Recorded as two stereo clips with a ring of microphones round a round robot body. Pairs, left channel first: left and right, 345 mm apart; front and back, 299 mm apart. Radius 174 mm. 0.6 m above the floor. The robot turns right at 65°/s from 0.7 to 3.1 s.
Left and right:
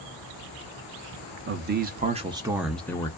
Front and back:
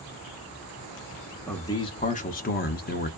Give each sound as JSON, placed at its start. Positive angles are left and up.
{"t": 1.5, "sound": "a man speaking", "azimuth_deg": -80, "distance_m": 0.6}